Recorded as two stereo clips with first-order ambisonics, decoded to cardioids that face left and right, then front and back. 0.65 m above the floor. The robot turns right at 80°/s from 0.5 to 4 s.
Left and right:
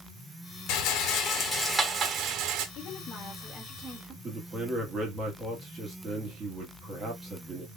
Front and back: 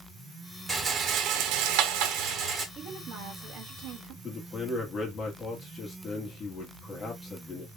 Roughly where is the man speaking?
Ahead right.